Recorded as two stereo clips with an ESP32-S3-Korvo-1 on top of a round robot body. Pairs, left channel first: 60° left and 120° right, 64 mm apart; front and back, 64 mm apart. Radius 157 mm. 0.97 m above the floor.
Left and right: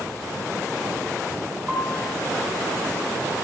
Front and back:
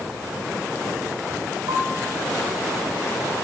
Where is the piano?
160° left, 9.5 m.